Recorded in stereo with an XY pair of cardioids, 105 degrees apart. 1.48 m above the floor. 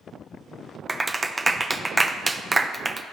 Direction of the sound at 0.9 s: 20° right.